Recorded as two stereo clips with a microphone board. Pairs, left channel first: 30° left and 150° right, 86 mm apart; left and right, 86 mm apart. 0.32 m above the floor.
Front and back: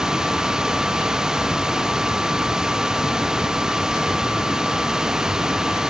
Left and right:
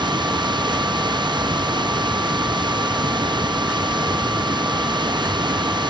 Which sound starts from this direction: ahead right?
Running water, at 0.0 s.